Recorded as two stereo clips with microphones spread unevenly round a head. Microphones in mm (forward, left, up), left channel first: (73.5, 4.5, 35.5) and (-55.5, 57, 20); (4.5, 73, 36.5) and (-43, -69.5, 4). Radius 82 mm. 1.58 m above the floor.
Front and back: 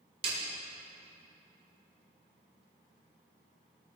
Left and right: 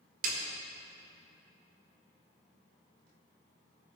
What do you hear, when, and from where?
0.2 s a snare drum: 145° right, 2 m